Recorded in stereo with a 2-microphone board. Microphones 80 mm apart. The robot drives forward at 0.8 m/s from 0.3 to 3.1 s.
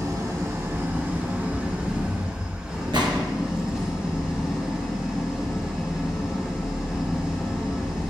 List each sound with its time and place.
0.0 s an engine running: 50° right (ahead or behind), 1.0 m; by 8.1 s 15° right (ahead or behind), 3 m
2.9 s a gunshot: 80° right, 1.2 m